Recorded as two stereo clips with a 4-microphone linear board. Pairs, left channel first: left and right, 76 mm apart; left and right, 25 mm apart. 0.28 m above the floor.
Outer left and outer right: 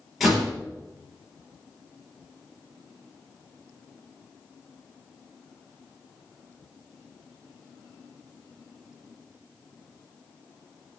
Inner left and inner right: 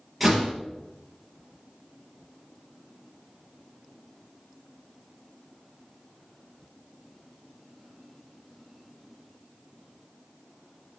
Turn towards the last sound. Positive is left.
turn(degrees=-5)  # may be behind; listen again after turning